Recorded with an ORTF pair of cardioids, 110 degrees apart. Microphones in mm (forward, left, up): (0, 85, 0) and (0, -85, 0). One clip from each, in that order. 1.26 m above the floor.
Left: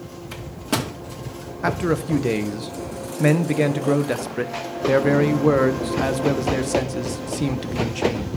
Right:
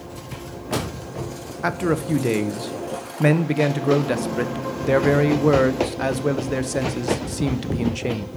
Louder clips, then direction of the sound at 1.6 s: Even; 5° right.